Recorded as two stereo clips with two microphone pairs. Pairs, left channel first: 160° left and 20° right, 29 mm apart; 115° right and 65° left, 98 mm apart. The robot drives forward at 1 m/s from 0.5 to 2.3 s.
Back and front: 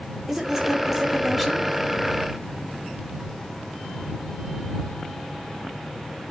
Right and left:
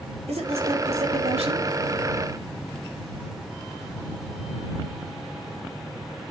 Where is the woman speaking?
55° left, 4.5 m; by 1.7 s 70° left, 4 m.